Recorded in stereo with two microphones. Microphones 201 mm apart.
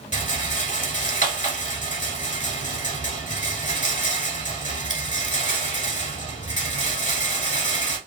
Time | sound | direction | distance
0.1 | a rattle | 40° left (ahead or behind) | 0.9 m